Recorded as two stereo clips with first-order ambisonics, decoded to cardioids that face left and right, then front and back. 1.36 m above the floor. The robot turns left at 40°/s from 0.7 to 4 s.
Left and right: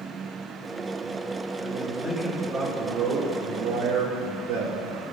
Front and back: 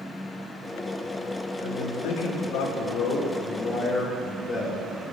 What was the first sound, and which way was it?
A man speaking, 15° left.